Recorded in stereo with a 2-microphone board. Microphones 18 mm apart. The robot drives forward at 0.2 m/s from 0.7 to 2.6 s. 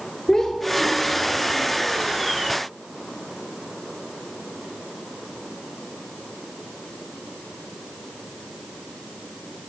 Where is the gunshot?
No gunshot in this recording.